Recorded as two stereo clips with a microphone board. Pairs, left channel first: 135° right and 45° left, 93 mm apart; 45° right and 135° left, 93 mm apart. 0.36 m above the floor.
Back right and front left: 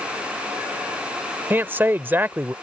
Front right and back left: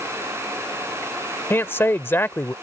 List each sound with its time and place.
1.5 s a man speaking: straight ahead